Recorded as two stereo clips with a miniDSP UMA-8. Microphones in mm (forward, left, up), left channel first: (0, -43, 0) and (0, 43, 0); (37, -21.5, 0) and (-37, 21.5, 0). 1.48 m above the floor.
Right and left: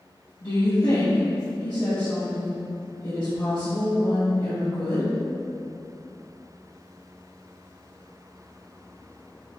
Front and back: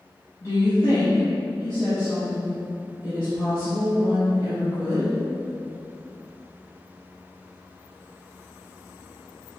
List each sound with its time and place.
0.4 s a woman speaking: 75° right, 1.4 m